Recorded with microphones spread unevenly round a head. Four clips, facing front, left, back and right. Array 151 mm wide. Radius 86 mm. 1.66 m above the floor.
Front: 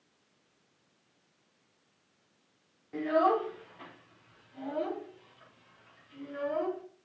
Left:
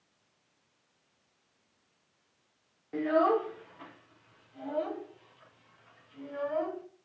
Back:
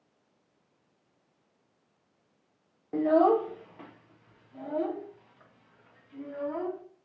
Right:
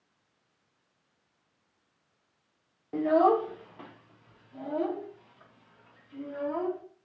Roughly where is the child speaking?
Behind.